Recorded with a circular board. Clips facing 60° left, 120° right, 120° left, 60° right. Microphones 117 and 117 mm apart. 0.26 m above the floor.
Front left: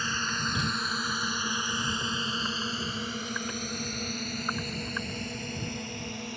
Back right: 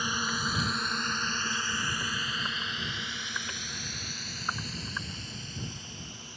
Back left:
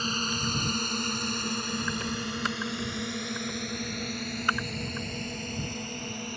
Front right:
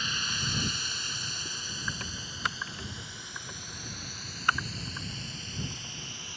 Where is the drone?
165° left; by 6.4 s 85° left.